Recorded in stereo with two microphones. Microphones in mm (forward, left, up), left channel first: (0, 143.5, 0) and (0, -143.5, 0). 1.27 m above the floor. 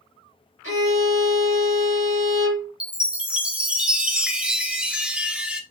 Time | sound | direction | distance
0.6 | a violin | 50° left (ahead or behind) | 3 m
2.8 | a chime | 5° right (ahead or behind) | 0.5 m